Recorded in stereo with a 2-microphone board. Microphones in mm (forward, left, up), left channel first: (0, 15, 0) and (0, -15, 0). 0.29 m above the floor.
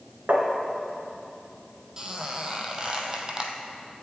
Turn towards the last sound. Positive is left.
turn(degrees=-20)  # may be behind; listen again after turning